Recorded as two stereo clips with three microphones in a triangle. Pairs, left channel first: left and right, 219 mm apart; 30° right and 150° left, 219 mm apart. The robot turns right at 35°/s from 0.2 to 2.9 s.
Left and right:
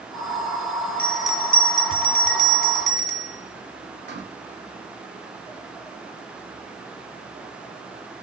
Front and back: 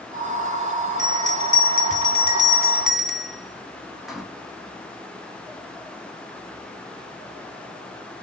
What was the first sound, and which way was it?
A bell, 170° left.